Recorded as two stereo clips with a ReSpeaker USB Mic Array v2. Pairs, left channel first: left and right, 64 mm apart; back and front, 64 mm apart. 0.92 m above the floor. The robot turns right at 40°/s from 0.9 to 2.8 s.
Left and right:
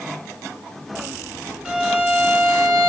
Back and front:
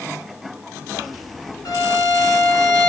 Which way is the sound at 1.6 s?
170° right.